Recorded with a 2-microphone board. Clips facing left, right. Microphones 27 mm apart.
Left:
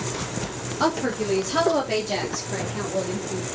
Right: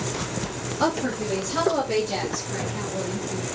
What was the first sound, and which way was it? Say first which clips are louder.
A woman speaking: left 1 dB; 10° left (ahead or behind).